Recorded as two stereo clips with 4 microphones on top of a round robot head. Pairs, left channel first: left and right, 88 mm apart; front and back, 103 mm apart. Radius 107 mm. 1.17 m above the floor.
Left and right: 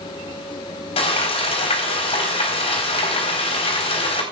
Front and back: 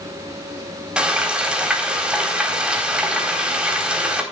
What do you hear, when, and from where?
1.0 s frying: 100° left, 4 m